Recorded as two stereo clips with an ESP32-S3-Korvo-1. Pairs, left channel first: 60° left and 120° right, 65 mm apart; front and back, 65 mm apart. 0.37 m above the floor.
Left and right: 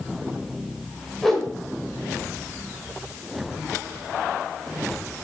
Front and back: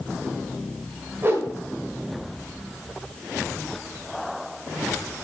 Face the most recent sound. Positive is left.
turn(degrees=145)